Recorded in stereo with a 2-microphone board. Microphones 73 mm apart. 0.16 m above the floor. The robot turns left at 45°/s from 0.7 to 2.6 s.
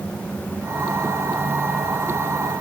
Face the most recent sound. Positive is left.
No sound to turn to.